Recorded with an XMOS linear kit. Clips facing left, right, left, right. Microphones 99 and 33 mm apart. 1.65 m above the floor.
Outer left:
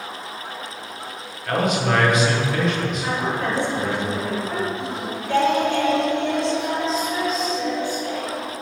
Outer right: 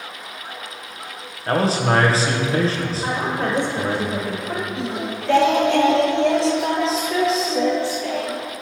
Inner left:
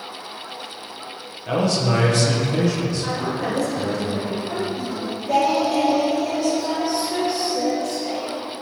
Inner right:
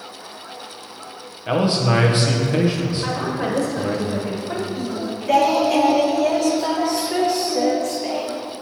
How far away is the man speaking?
About 0.8 m.